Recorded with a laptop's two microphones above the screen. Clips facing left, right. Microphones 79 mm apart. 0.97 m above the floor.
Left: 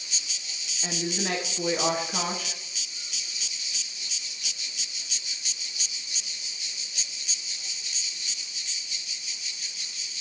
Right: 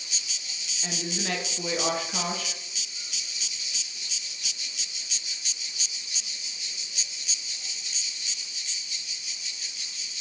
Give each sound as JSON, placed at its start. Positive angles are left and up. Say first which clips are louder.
{"t": 0.8, "sound": "a woman speaking", "louder": "left 2 dB", "side_deg": 15, "distance_m": 1.1}